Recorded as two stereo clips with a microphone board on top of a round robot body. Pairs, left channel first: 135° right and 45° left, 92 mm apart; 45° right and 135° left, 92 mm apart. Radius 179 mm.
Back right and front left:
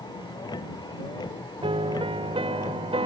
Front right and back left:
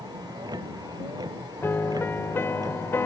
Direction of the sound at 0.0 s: Straight behind.